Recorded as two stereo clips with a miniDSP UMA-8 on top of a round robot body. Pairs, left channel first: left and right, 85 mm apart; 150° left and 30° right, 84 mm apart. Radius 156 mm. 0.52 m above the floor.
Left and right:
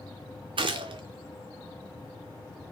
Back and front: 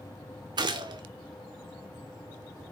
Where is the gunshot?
65° right, 0.5 m.